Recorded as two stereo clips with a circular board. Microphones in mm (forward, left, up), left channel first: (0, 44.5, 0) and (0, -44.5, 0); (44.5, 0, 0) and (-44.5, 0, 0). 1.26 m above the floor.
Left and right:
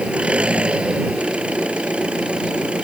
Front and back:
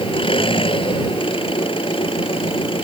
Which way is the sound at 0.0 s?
10° right.